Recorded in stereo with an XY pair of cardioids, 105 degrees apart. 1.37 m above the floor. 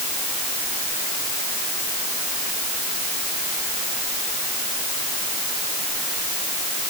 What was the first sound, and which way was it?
Only background noise.